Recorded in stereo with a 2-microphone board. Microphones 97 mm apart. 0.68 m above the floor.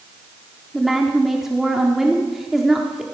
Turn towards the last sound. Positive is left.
turn(degrees=-5)  # may be behind; listen again after turning